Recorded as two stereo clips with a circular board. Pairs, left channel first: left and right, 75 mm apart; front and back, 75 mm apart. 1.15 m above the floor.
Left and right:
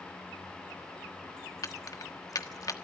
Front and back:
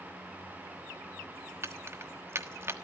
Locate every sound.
1.6 s keys jangling: 125° left, 1.2 m